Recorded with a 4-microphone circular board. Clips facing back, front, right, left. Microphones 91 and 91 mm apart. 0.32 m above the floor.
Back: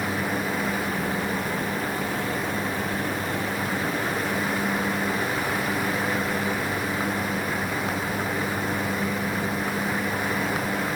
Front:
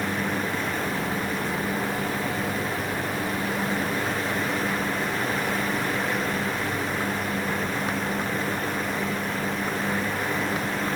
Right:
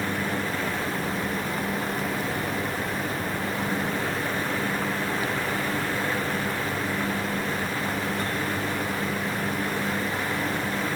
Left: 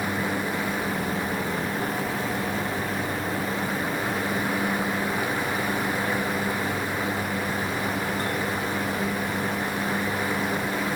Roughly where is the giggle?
No giggle in this recording.